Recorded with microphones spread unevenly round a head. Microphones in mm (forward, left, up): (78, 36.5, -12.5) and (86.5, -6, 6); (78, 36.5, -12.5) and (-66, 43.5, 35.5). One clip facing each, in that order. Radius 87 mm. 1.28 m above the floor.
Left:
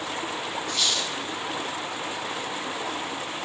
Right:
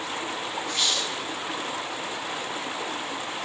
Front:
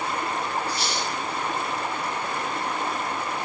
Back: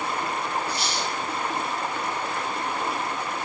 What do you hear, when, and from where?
0.7 s a squeak: 40° right, 1.4 m